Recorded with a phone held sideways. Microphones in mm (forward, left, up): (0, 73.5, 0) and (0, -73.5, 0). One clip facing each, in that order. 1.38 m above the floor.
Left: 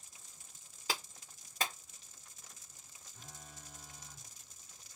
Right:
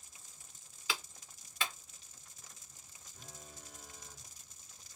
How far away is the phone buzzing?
About 1.3 m.